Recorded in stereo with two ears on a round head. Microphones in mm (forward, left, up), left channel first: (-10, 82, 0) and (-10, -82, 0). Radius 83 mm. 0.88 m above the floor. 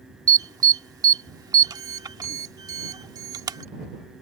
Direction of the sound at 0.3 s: 20° right (ahead or behind).